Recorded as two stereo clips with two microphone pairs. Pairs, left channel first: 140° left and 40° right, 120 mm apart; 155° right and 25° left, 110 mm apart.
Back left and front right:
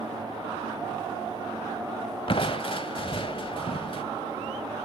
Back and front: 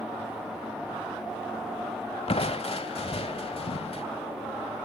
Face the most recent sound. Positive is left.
turn(degrees=180)